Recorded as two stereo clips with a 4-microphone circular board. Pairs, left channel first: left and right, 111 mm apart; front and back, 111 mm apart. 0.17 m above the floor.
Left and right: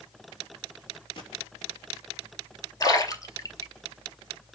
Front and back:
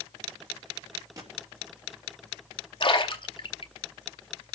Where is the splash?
35° left, 0.9 m.